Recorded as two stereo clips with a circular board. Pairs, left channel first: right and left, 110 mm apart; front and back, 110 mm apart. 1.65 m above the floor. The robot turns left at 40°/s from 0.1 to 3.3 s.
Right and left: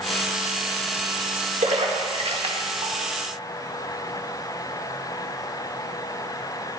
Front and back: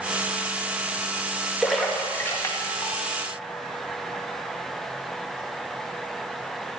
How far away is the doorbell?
No doorbell in this recording.